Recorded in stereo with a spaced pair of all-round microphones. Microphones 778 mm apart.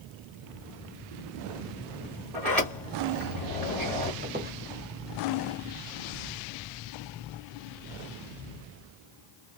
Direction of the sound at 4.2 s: 15° right (ahead or behind).